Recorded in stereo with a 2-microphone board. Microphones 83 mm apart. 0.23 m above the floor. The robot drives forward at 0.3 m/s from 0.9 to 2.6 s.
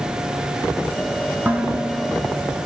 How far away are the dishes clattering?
About 1.3 m.